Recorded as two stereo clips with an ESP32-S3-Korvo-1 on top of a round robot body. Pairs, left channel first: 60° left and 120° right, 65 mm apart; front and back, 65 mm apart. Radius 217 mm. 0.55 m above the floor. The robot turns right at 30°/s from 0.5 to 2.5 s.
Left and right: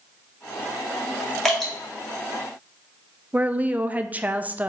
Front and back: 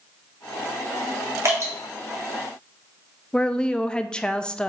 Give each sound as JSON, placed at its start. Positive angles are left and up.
{"t": 1.4, "sound": "dripping", "azimuth_deg": 145, "distance_m": 2.0}
{"t": 3.3, "sound": "a woman speaking", "azimuth_deg": -70, "distance_m": 0.6}